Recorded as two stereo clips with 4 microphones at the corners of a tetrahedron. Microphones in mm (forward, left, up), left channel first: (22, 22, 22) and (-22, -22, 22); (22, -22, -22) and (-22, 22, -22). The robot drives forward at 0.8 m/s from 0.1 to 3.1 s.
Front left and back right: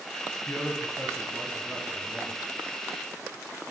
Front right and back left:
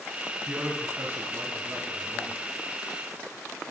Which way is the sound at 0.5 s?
80° left.